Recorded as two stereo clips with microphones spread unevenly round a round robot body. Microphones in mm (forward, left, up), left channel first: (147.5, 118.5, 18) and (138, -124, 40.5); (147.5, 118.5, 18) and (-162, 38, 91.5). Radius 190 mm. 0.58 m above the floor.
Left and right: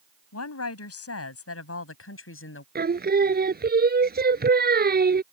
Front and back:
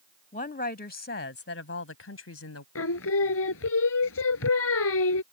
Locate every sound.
0.3 s a woman speaking: 80° left; by 2.6 s 55° left
2.8 s singing: 40° right